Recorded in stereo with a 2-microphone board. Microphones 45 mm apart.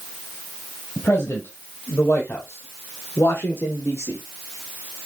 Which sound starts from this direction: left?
A man speaking, at 1.0 s.